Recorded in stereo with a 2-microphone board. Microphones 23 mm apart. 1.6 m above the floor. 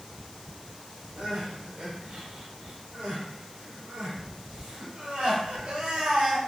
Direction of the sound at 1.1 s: 55° right (ahead or behind).